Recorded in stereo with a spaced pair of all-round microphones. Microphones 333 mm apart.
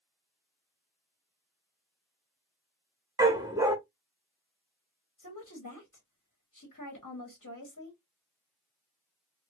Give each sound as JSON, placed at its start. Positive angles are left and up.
{"t": 3.2, "sound": "a dog barking", "side_deg": -10, "distance_m": 0.7}
{"t": 5.2, "sound": "a woman speaking", "side_deg": 60, "distance_m": 1.2}